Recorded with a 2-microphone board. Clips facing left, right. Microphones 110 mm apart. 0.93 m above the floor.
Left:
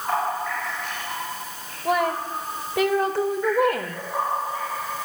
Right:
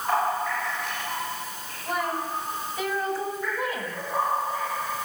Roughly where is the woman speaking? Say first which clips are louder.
Left 6 dB; left.